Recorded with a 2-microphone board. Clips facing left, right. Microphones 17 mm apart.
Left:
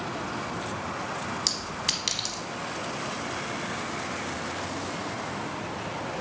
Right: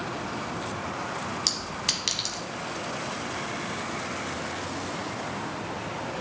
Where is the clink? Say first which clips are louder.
Right 1 dB; centre (ahead or behind), 0.9 m.